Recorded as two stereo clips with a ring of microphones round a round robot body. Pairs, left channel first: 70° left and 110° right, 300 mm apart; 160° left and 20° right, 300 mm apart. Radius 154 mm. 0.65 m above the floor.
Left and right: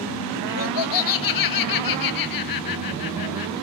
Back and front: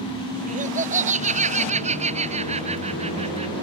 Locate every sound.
0.5 s laughter: 45° left; by 3.5 s 50° left